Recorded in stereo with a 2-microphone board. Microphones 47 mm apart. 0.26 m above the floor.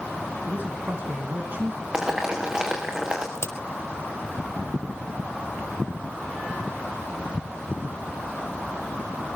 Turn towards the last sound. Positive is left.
turn(degrees=60)  # may be behind; listen again after turning